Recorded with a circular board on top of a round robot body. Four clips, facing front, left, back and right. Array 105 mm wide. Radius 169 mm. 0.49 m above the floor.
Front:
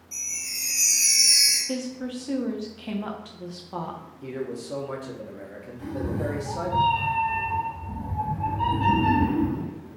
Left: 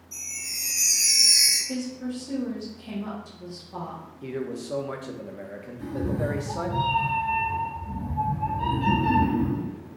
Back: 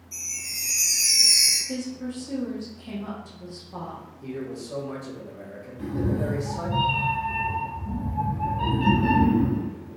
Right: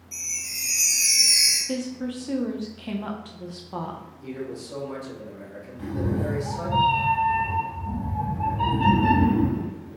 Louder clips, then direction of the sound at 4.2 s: Left 3 dB, front 1 dB; 65° left.